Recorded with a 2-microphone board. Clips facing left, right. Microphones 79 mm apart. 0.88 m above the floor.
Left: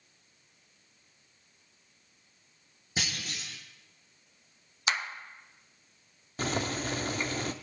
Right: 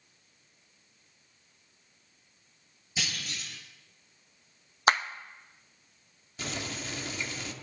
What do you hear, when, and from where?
3.0 s a clunk: 50° left (ahead or behind), 4 m
4.9 s a clap: 45° right (ahead or behind), 0.5 m
6.4 s boiling: 45° left (ahead or behind), 0.6 m